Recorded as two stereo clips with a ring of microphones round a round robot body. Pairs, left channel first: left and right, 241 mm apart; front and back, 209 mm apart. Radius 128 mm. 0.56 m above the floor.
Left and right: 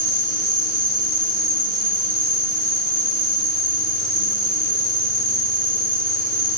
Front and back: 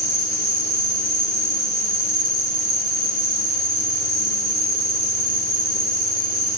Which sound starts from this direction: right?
An insect, at 0.0 s.